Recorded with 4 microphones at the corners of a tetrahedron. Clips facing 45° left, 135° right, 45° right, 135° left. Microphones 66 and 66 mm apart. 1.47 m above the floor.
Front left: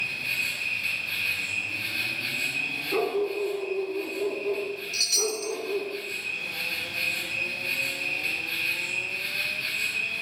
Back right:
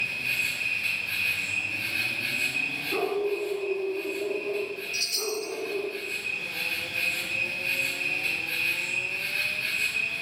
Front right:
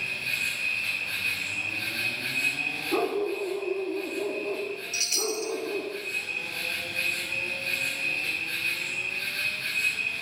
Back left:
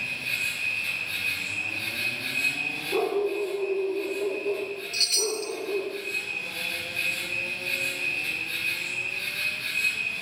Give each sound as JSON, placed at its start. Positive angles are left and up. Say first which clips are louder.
{"t": 0.0, "sound": "an insect", "louder": "back right 1 dB, even", "azimuth_deg": -75, "distance_m": 5.0}
{"t": 2.9, "sound": "a dog barking", "louder": "front left 1 dB, back left 2 dB", "azimuth_deg": -40, "distance_m": 4.0}
{"t": 4.9, "sound": "a chime", "louder": "front left 2 dB, back left 2 dB", "azimuth_deg": 35, "distance_m": 0.7}